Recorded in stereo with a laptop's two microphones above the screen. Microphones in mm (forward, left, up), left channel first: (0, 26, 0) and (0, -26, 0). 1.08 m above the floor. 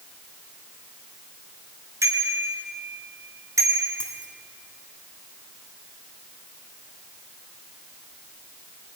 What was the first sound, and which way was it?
A bicycle bell, 65° right (ahead or behind).